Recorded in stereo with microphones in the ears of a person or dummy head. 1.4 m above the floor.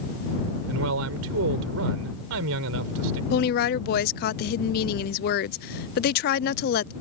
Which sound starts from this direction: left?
A woman speaking, at 3.3 s.